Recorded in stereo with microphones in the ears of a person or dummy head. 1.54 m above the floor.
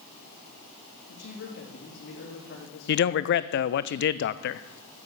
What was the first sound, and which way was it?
A man speaking, 60° left (ahead or behind).